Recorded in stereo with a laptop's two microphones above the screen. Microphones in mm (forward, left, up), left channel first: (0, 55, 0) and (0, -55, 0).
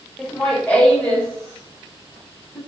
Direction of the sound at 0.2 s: 5° left (ahead or behind).